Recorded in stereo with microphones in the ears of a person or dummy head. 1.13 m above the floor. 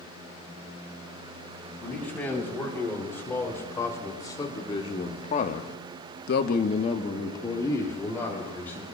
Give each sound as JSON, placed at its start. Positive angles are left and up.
{"t": 1.8, "sound": "a man speaking", "side_deg": 5, "distance_m": 6.0}